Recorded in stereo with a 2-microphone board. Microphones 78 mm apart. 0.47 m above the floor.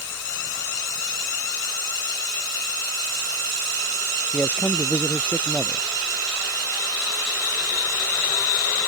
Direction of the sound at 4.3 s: 20° left (ahead or behind).